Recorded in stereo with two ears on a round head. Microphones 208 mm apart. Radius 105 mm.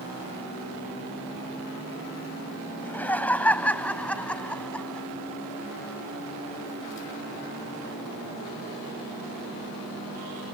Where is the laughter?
10° left (ahead or behind); by 5.1 s 5° left (ahead or behind).